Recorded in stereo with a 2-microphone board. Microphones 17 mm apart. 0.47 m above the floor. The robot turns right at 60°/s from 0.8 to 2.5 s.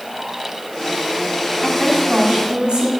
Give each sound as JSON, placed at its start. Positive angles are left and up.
{"t": 1.6, "sound": "a woman speaking", "azimuth_deg": 175, "distance_m": 3.5}